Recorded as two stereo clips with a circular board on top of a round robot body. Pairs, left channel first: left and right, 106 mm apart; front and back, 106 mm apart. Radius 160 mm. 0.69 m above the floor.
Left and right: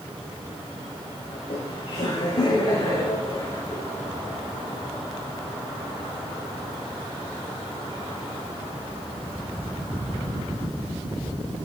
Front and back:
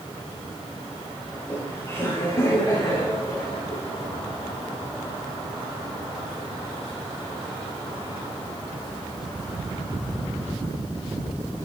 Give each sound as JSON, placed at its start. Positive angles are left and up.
{"t": 1.3, "sound": "laughter", "azimuth_deg": 70, "distance_m": 4.5}